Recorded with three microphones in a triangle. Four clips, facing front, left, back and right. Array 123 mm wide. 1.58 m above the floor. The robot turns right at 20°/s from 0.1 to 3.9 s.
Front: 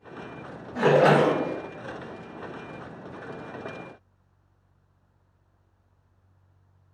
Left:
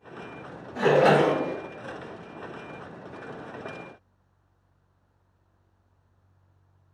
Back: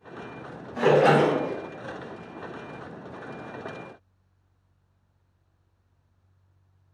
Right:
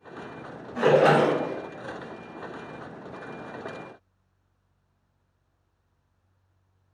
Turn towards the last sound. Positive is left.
turn(degrees=45)